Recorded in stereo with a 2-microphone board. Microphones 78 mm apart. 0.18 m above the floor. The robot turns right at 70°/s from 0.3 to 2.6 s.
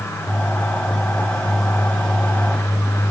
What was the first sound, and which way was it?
Only background noise.